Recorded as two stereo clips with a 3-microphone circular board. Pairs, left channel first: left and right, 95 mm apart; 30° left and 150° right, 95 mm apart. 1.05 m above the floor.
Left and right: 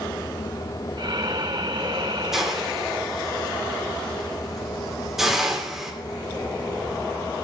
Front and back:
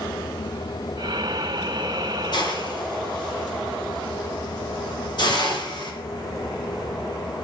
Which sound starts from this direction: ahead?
A hiss, at 2.3 s.